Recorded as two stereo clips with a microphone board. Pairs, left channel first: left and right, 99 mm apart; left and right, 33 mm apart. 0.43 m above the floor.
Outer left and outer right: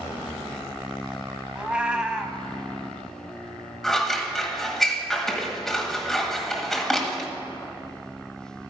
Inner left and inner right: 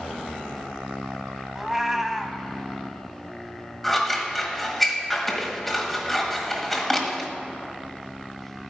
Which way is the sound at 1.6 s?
10° right (ahead or behind).